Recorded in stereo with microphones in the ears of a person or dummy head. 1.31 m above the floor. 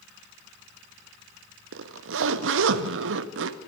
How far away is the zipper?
About 1.1 m.